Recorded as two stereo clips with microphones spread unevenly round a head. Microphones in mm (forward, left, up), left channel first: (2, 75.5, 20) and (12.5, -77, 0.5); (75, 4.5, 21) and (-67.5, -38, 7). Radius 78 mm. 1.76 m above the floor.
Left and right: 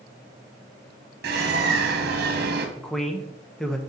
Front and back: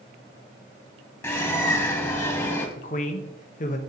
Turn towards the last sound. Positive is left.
turn(degrees=15)